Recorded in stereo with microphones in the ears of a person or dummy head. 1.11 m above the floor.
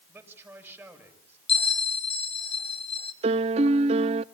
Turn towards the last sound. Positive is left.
turn(degrees=-30)  # may be behind; listen again after turning